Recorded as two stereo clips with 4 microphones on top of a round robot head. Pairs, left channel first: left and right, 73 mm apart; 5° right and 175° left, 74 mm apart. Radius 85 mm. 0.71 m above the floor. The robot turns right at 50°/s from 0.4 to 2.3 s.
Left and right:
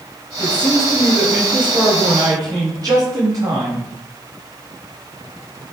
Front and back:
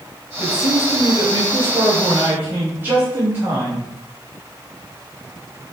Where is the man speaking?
145° left, 5.5 m; by 3.9 s 120° right, 5.5 m.